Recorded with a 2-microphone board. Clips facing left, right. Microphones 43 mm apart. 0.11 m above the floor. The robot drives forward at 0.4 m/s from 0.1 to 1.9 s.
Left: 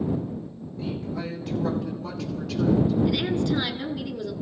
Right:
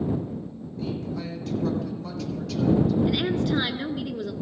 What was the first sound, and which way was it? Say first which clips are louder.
A woman speaking: even; 10° left (ahead or behind).